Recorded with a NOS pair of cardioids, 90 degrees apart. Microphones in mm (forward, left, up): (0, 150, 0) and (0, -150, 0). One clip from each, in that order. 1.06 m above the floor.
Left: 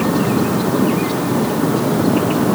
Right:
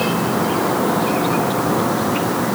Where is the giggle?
No giggle in this recording.